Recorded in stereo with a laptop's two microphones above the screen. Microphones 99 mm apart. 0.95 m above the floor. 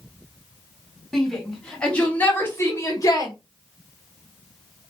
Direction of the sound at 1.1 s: Centre (ahead or behind).